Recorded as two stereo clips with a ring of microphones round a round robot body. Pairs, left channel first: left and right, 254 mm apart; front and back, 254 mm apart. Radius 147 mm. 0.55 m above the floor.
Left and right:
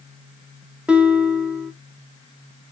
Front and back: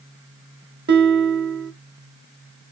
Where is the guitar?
175° right, 0.7 m.